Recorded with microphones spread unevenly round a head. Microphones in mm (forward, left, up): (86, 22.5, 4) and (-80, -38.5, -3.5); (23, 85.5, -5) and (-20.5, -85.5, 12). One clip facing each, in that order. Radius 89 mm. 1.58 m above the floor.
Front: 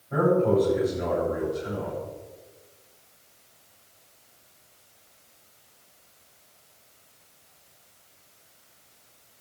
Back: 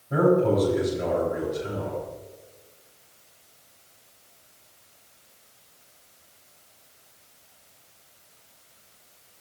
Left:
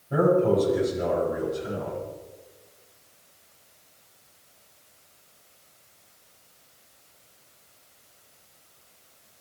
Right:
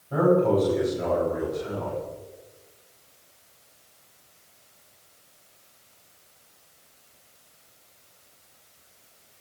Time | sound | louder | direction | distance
0.1 | a man speaking | back 1 dB, even | 145° left | 9 m